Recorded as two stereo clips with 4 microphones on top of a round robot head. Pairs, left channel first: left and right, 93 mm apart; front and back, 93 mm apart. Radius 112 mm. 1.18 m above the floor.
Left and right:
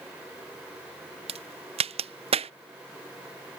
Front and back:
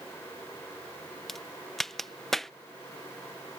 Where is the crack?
85° right.